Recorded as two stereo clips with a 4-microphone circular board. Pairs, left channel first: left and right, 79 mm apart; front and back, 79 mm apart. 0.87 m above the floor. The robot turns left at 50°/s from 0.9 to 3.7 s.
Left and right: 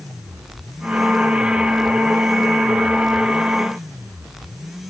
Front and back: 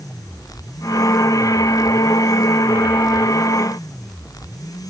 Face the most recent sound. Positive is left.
No sound to turn to.